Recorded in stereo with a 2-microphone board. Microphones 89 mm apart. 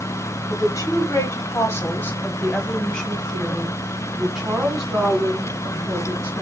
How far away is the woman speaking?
About 1.9 m.